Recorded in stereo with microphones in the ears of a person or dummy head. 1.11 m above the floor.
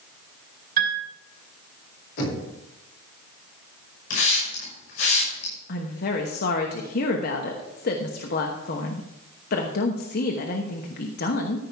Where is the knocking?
65° left (ahead or behind), 4 m.